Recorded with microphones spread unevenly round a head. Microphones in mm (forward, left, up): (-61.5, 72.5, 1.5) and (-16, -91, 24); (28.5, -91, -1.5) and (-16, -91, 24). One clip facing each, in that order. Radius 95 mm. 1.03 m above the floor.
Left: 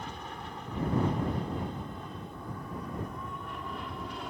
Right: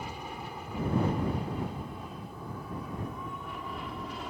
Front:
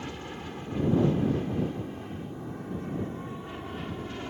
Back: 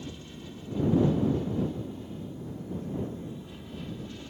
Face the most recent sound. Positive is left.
turn(degrees=15)